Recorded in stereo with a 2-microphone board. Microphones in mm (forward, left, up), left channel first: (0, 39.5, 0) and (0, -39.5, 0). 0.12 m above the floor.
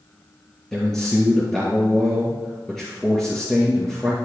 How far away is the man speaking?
About 2.0 m.